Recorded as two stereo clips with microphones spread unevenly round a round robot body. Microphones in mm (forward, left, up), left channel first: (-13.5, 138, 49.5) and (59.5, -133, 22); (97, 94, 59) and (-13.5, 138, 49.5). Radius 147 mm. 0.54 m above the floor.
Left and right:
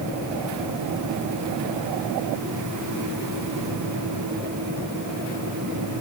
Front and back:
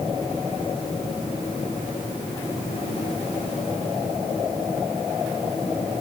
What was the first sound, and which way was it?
Only background noise.